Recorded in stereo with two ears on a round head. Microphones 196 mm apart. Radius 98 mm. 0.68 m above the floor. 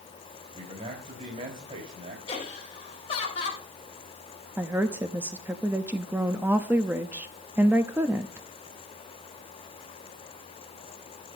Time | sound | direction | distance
0.5 | a man speaking | 40° right (ahead or behind) | 3.5 m
2.3 | laughter | 25° left (ahead or behind) | 3.5 m
4.6 | a woman speaking | 10° right (ahead or behind) | 0.7 m